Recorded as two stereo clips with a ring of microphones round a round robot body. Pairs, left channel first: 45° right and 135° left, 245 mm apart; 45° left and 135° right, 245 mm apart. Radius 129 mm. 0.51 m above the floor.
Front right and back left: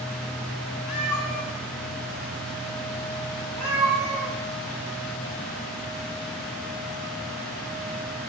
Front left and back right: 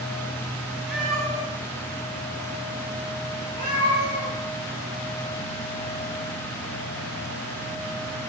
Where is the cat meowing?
45° right, 1.2 m; by 4.3 s 20° right, 3.5 m.